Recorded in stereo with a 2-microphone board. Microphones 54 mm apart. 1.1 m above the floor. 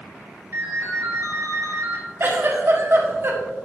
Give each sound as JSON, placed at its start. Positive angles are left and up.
{"t": 0.5, "sound": "a ringtone", "side_deg": -60, "distance_m": 2.5}
{"t": 2.2, "sound": "a giggle", "side_deg": -50, "distance_m": 1.3}